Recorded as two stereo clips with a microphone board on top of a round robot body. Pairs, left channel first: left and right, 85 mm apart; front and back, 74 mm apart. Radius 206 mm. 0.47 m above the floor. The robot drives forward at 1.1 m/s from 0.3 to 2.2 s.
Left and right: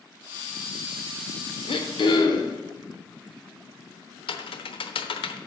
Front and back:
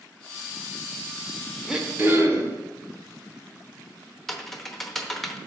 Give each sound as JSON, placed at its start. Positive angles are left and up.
{"t": 1.7, "sound": "throat clearing", "azimuth_deg": 95, "distance_m": 1.1}
{"t": 4.3, "sound": "typing on a keyboard", "azimuth_deg": 85, "distance_m": 0.9}